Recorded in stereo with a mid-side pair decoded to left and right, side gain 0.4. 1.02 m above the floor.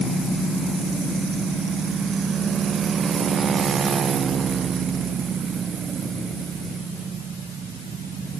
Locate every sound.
Only background noise.